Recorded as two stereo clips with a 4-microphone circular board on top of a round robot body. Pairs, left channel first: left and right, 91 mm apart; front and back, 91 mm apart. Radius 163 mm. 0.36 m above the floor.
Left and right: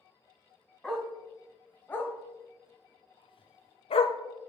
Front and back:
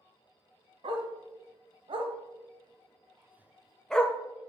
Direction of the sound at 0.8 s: 175° left.